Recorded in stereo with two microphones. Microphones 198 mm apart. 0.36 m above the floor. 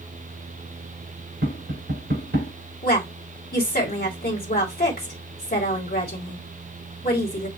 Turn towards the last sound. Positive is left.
turn(degrees=50)  # may be behind; listen again after turning